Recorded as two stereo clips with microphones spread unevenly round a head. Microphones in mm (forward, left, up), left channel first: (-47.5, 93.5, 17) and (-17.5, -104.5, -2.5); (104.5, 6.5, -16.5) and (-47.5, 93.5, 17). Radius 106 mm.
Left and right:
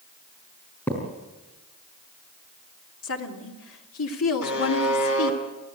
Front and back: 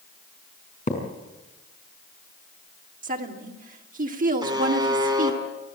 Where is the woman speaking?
105° left, 3 m.